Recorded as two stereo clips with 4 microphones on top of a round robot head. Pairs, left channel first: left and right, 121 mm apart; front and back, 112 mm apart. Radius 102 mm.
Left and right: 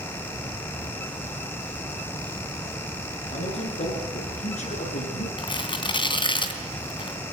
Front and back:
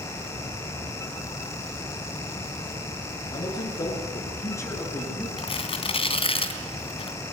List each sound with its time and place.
3.3 s a man speaking: 60° left, 6.5 m; by 5.3 s 70° left, 7 m
5.4 s tearing paper: 40° left, 2.5 m